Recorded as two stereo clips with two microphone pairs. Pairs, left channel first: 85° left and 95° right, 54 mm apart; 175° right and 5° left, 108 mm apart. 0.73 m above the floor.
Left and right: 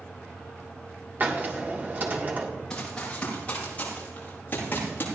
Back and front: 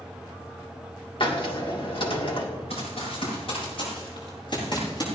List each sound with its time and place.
1.2 s a hiss: 145° right, 1.8 m
2.7 s running footsteps: 160° left, 6 m; by 5.0 s 135° left, 7.5 m